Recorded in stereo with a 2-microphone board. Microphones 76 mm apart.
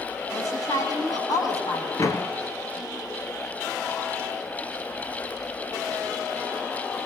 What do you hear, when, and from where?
0.3 s a woman speaking: 55° left (ahead or behind), 7 m
2.0 s a door slam: 45° left (ahead or behind), 1.5 m